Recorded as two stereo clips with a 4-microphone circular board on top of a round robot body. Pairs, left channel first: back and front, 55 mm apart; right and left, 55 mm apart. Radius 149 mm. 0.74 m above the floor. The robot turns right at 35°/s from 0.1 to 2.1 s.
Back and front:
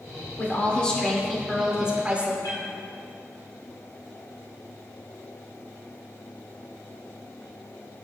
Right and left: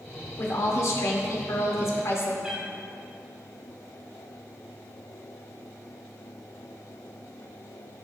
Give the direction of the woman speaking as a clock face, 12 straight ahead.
4 o'clock.